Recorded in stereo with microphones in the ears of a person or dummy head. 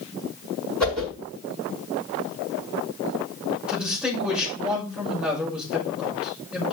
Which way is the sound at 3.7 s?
Centre (ahead or behind).